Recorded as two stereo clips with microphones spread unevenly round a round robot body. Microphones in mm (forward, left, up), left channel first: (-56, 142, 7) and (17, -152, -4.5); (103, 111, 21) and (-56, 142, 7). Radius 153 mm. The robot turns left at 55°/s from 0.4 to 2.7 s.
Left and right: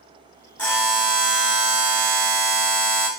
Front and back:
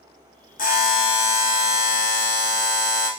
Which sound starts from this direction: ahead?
A buzzer, at 0.6 s.